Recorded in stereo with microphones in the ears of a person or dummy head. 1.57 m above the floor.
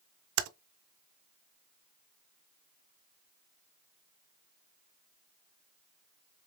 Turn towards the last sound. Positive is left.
turn(degrees=-90)